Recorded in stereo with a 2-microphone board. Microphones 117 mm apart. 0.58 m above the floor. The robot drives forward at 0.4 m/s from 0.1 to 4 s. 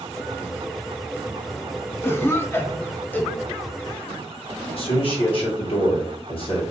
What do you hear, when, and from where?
2.0 s a cough: 20° left (ahead or behind), 0.6 m; by 4.1 s 10° left (ahead or behind), 1.1 m
4.7 s a man speaking: 50° left (ahead or behind), 1.4 m